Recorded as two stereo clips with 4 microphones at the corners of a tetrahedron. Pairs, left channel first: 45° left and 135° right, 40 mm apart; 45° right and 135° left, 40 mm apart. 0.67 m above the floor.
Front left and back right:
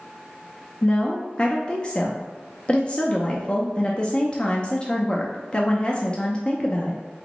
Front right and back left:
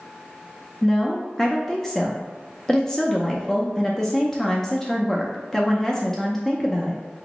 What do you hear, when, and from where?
0.8 s a woman speaking: 20° left, 0.5 m